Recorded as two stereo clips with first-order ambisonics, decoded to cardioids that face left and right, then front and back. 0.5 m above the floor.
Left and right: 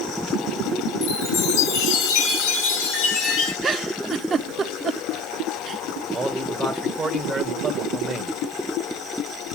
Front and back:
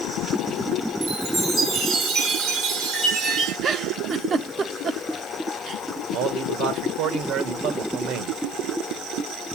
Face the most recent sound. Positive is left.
turn(degrees=-170)